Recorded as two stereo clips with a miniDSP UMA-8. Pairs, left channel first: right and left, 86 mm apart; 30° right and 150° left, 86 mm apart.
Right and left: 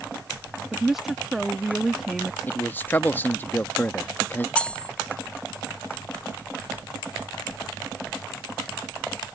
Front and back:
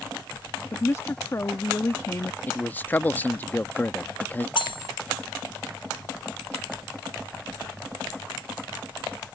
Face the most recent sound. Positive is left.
turn(degrees=-15)